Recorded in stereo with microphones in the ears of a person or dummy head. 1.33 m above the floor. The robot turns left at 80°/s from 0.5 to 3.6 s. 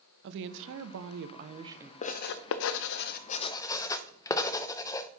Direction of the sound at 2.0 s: 30° left (ahead or behind).